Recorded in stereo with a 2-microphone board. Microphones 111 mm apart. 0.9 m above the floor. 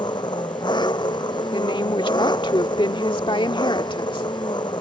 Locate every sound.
0.0 s an engine running: 40° left (ahead or behind)
1.5 s a woman speaking: 50° left (ahead or behind)